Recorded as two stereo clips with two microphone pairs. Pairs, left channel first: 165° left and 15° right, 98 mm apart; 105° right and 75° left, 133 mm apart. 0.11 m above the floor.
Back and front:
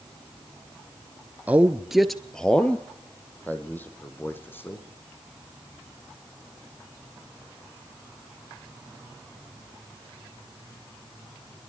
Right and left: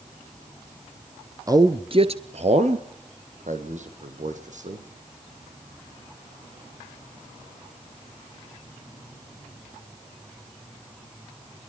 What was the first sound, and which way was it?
A man speaking, 40° left.